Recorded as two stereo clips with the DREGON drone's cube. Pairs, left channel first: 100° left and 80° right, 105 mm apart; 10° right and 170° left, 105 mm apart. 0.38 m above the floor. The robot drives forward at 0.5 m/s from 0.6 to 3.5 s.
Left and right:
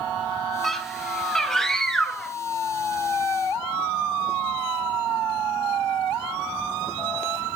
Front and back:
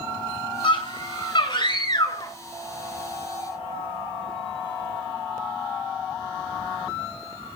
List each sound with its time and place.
0.6 s a scream: 15° left, 3 m; by 2.4 s 20° left, 2 m